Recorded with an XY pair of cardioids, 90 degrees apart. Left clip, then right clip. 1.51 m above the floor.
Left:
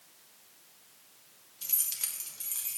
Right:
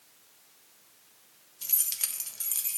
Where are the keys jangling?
20° right, 1.1 m; by 2.8 s 60° right, 2.0 m.